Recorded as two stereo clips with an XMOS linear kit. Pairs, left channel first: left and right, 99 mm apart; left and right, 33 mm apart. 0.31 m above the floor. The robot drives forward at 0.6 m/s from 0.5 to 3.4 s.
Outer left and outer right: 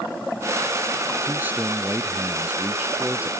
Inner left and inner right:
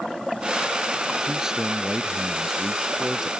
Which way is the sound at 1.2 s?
20° right (ahead or behind).